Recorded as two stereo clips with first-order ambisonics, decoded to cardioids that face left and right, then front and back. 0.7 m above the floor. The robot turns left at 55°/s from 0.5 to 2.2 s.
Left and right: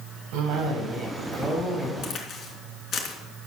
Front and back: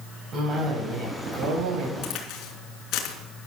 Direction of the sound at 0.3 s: 115° right.